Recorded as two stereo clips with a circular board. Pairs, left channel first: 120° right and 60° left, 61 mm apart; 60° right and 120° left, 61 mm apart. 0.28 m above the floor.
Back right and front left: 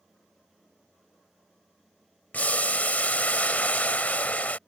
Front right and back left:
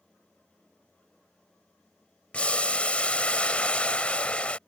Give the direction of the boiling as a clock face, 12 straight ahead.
3 o'clock.